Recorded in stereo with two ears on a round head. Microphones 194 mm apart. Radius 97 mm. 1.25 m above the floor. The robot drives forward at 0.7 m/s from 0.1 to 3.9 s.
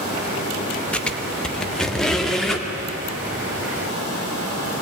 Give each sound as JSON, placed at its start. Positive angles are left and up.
{"t": 0.9, "sound": "a squeak", "side_deg": 5, "distance_m": 0.8}